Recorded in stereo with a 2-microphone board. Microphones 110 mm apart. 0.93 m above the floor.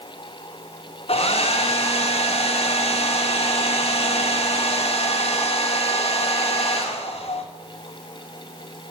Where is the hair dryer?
70° left (ahead or behind), 0.9 m.